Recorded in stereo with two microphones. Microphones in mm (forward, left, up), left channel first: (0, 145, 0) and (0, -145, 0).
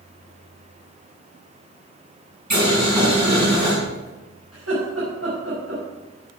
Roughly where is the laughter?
Right.